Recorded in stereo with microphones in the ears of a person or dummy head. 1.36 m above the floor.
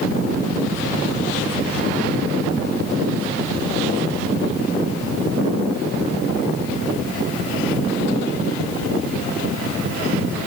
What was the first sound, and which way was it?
Only background noise.